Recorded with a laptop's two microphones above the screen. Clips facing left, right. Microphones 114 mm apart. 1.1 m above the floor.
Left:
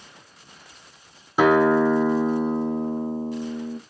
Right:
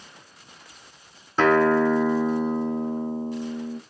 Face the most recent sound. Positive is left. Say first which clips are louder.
# left 1 dB
turn(degrees=10)  # may be behind; listen again after turning